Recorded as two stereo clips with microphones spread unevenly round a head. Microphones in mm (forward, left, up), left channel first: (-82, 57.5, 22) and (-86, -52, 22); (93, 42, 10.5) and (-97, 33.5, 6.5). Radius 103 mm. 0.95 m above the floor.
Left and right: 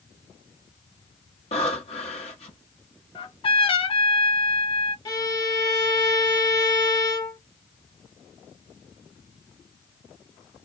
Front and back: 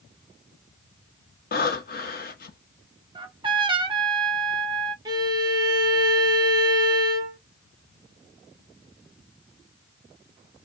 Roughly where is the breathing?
Ahead left.